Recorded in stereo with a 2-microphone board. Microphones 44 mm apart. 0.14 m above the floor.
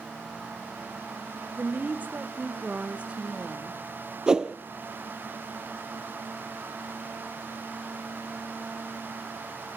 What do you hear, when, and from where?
1.6 s a woman speaking: 40° right (ahead or behind), 1.4 m; by 3.8 s 15° right (ahead or behind), 1.4 m
4.3 s a whoosh: 20° right (ahead or behind), 0.5 m